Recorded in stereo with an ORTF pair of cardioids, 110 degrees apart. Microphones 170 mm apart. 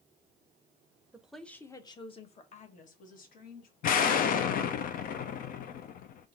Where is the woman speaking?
10° right, 0.7 m; by 3.7 s 60° left, 1.7 m.